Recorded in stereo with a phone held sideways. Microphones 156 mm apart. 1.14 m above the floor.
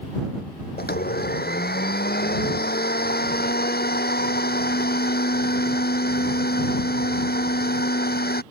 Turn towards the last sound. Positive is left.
turn(degrees=90)